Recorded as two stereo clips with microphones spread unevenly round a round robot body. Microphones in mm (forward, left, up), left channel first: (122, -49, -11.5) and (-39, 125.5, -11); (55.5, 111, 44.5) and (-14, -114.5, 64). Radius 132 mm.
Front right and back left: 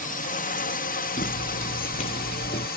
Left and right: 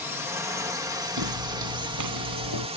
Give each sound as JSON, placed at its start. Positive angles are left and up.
{"t": 0.0, "sound": "a drone", "azimuth_deg": -25}
{"t": 1.2, "sound": "footsteps", "azimuth_deg": -110}